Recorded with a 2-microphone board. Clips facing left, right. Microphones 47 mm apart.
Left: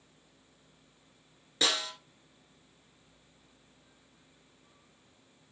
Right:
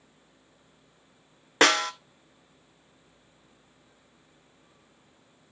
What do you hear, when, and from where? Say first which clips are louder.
1.6 s a snare drum: right 10 dB; 65° right (ahead or behind), 0.6 m